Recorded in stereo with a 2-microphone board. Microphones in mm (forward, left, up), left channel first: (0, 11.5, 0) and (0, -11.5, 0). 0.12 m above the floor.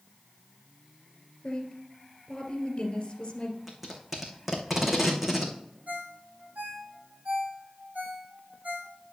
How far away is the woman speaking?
About 2.5 m.